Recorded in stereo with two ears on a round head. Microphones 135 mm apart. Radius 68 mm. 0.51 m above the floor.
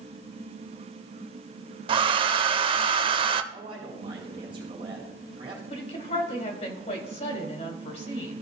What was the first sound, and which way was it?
A hair dryer, 35° right (ahead or behind).